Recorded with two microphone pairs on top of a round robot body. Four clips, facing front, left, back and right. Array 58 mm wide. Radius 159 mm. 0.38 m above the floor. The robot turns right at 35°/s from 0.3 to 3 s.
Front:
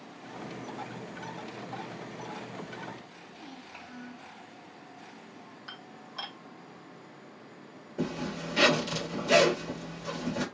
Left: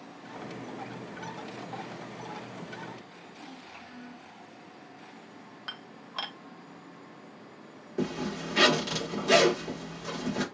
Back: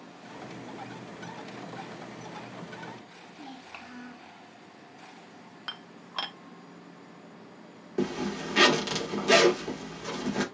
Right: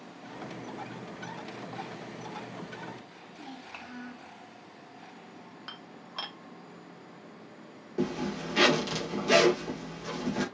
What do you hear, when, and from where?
3.3 s a child speaking: 135° right, 1.5 m
5.7 s dishes clattering: 155° left, 0.9 m
8.0 s a zipper: 170° left, 2 m